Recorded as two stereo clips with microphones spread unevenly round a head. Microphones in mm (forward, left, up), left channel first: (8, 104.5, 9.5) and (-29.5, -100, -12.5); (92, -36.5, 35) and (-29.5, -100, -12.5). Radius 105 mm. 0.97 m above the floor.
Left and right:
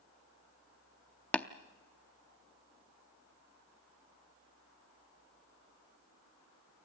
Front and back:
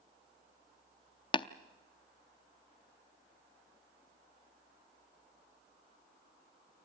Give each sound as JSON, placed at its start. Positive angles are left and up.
{"t": 1.3, "sound": "tapping", "azimuth_deg": 0, "distance_m": 0.5}